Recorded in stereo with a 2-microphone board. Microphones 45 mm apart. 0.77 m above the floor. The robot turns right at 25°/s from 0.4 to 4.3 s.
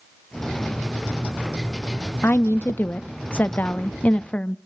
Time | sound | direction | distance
2.2 | a woman speaking | 85° left | 0.6 m